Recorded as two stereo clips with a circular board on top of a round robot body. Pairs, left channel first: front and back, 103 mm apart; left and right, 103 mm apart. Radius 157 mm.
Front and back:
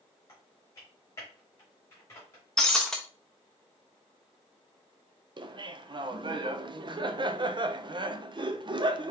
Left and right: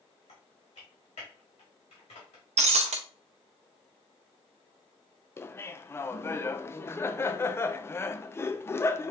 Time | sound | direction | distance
0.3 | typing on a keyboard | 65° left | 0.9 m
2.6 | breaking glass | 85° right | 0.5 m
5.4 | laughter | 150° left | 0.6 m